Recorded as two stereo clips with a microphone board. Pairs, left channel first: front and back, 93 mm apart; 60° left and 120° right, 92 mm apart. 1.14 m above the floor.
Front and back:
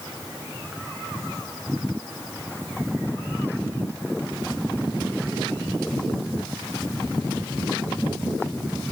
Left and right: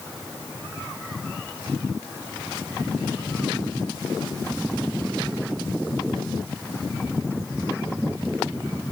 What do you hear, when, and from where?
Only background noise.